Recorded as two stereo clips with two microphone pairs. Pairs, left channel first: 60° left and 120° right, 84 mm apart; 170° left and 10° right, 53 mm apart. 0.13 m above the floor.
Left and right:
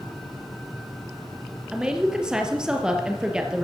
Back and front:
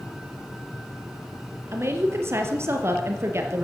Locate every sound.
1.7 s a woman speaking: 40° right, 3 m